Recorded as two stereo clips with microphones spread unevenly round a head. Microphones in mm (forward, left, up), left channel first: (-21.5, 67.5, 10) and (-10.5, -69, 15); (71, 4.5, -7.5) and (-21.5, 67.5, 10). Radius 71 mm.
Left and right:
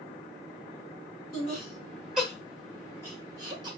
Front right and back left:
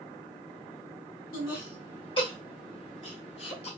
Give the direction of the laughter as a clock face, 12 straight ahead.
12 o'clock.